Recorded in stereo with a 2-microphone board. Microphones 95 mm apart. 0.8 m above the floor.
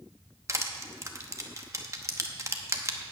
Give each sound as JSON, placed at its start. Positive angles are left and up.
{"t": 0.5, "sound": "crushing", "side_deg": -30, "distance_m": 0.9}